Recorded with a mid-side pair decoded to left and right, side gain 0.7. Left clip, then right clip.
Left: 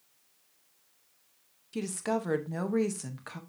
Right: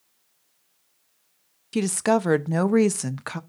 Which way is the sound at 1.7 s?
45° right.